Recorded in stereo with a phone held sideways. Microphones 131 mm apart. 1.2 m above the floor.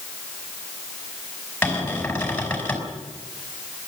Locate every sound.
1.6 s a cupboard door: 10° left (ahead or behind), 5 m